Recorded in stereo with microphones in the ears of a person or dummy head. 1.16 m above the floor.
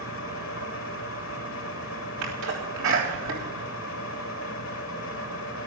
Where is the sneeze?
70° right (ahead or behind), 3.5 m.